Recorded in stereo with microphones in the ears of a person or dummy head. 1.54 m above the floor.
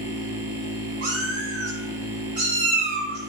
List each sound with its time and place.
0.0 s a machine running: 15° right (ahead or behind), 1.2 m
1.0 s a cat meowing: 40° right (ahead or behind), 1.8 m